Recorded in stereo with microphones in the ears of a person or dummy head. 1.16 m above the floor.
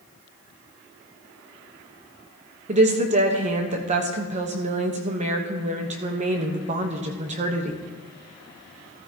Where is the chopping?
No chopping in this recording.